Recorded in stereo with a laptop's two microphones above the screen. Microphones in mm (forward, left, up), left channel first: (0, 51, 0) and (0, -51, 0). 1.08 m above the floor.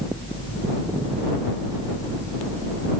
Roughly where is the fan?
Left.